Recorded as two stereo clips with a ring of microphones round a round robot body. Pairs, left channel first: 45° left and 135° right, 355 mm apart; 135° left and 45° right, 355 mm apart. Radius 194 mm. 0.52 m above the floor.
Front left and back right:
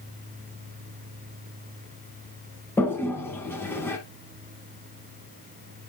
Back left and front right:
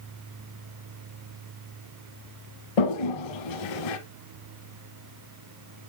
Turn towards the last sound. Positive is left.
turn(degrees=130)